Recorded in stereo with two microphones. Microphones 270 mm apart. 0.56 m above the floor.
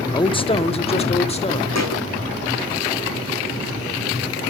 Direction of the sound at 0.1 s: 15° left (ahead or behind).